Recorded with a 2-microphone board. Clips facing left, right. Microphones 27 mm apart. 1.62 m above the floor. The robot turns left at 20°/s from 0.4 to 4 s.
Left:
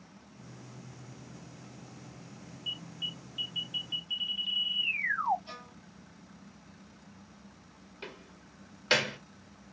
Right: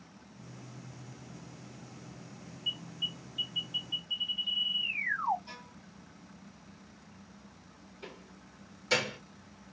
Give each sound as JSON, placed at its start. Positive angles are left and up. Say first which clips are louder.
{"t": 2.7, "sound": "an alarm", "louder": "right 2 dB", "side_deg": 0, "distance_m": 3.0}
{"t": 5.5, "sound": "a violin", "louder": "left 2 dB", "side_deg": 40, "distance_m": 3.0}
{"t": 8.0, "sound": "a door slam", "louder": "left 3 dB", "side_deg": 50, "distance_m": 1.6}